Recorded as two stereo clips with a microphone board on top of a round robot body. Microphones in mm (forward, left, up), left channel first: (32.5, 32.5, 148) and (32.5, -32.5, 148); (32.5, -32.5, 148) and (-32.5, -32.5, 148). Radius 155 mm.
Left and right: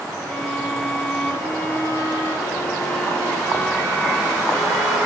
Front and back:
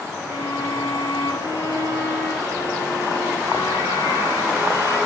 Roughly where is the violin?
Ahead left.